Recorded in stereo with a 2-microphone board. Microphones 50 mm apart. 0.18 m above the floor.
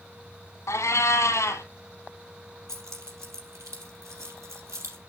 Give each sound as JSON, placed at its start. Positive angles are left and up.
{"t": 0.7, "sound": "a cat meowing", "side_deg": 75, "distance_m": 1.1}
{"t": 2.7, "sound": "keys jangling", "side_deg": -65, "distance_m": 3.5}